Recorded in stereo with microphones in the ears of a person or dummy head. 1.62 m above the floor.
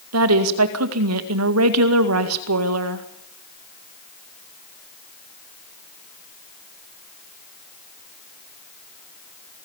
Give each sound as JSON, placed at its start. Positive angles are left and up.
{"t": 0.1, "sound": "a woman speaking", "side_deg": -85, "distance_m": 1.9}